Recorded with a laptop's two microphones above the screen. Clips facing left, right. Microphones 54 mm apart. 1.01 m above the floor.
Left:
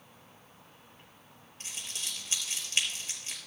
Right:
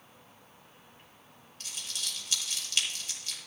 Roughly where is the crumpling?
Left.